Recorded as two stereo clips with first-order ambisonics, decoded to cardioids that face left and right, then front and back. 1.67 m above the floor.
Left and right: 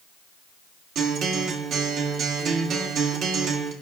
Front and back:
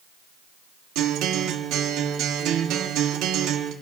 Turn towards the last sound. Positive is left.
turn(degrees=-145)